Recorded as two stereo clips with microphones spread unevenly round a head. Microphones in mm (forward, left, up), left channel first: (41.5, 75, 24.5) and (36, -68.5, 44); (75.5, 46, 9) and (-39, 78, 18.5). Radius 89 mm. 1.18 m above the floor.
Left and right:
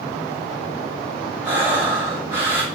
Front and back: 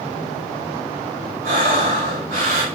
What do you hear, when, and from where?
1.4 s breathing: 170° right, 3.5 m